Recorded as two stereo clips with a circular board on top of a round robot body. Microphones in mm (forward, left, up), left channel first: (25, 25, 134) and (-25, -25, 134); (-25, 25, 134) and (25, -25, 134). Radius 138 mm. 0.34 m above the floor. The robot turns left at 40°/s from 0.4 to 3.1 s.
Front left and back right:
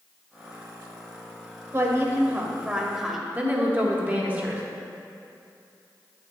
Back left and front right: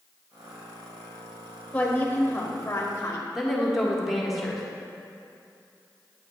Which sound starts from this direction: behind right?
A woman speaking, at 3.4 s.